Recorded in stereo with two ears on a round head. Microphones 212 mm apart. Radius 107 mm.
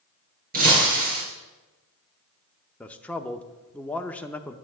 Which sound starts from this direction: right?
Breaking glass, at 0.5 s.